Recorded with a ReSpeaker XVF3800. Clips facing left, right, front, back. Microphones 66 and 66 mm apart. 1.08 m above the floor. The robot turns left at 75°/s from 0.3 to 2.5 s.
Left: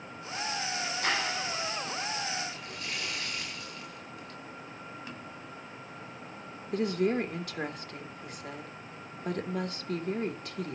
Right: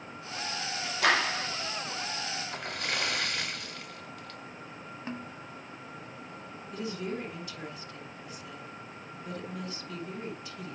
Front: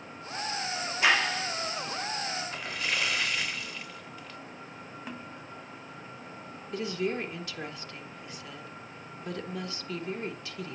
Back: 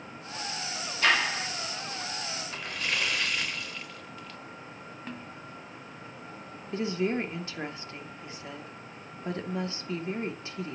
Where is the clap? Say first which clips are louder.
Right 6 dB, even; 80° right, 2.0 m; by 1.5 s 115° right, 2.0 m.